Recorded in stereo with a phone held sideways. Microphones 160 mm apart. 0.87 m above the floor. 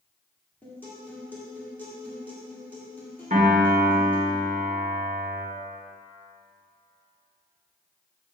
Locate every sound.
0.6 s a guitar: 10° left (ahead or behind), 1.9 m
3.3 s a piano: 50° right (ahead or behind), 1.7 m